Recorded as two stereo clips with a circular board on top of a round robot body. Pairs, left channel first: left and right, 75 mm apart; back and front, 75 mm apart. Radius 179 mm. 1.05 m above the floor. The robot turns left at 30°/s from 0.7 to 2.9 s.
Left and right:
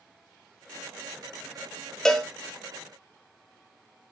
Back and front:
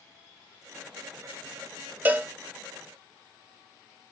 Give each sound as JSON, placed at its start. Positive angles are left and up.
{"t": 2.0, "sound": "a cowbell", "azimuth_deg": 15, "distance_m": 0.8}